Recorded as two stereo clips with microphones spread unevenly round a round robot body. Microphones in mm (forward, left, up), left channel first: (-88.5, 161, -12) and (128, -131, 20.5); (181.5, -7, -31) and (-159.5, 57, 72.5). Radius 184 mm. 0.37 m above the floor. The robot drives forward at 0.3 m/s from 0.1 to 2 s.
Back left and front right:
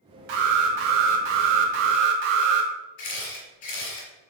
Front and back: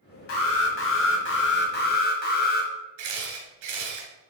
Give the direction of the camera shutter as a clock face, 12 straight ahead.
6 o'clock.